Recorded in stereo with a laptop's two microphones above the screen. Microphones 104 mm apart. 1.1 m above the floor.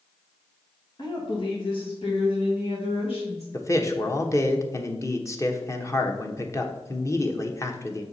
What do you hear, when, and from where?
1.0 s a woman speaking: 45° left (ahead or behind), 1.6 m; by 3.4 s 75° left (ahead or behind), 3 m
3.5 s a man speaking: 30° left (ahead or behind), 1.1 m